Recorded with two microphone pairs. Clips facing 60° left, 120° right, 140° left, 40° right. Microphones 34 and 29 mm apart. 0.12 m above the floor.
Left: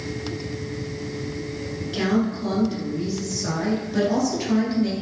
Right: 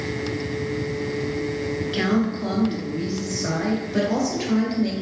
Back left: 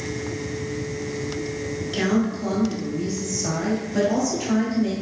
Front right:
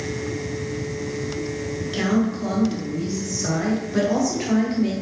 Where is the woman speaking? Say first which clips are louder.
Even, front right 1 dB; 125° right, 1.5 m; by 4.9 s 35° right, 2.0 m.